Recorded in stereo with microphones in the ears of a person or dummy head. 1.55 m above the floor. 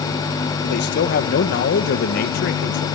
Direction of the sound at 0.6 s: 55° left (ahead or behind).